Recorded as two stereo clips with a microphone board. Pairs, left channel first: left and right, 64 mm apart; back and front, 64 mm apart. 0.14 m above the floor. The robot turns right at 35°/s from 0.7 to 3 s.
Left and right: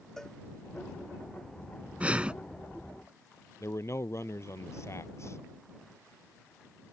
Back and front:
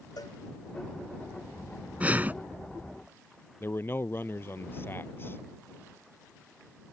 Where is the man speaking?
130° left.